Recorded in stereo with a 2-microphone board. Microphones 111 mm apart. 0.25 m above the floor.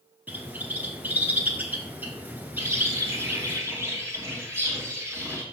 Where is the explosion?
No explosion in this recording.